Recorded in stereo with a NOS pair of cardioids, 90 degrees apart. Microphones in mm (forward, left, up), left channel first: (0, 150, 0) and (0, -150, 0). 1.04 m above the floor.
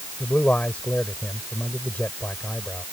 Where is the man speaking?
5° left.